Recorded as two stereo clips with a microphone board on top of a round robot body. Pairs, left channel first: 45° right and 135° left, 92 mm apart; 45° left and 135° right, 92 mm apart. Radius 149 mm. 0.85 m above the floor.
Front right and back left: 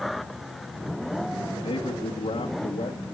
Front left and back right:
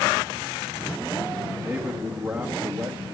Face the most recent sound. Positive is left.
turn(degrees=-75)